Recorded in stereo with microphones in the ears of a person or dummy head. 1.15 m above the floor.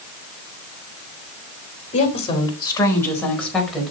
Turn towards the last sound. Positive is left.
turn(degrees=0)  # may be behind; listen again after turning